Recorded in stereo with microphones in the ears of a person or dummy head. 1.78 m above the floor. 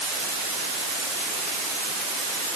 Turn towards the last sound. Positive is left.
No sound to turn to.